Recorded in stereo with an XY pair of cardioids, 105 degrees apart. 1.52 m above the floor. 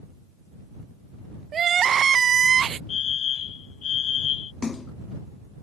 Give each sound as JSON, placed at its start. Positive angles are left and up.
{"t": 1.5, "sound": "crying", "azimuth_deg": -50}
{"t": 2.9, "sound": "a fire alarm", "azimuth_deg": 65}
{"t": 4.6, "sound": "a splash", "azimuth_deg": 30}